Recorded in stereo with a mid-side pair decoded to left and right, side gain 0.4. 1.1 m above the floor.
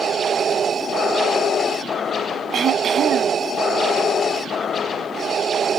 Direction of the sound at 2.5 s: 70° right.